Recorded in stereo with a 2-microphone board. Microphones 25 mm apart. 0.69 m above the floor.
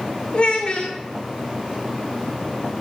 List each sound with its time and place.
0.3 s a child speaking: 45° left (ahead or behind), 0.5 m